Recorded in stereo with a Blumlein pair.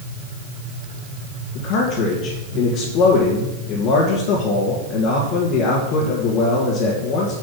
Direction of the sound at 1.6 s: 35° left.